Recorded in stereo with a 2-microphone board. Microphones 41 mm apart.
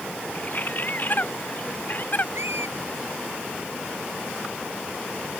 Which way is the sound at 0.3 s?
45° left (ahead or behind).